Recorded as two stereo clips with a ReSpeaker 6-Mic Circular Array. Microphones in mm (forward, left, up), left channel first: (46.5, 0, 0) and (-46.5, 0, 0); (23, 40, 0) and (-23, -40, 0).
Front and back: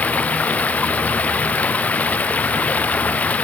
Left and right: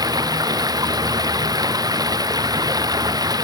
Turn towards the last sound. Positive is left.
turn(degrees=-75)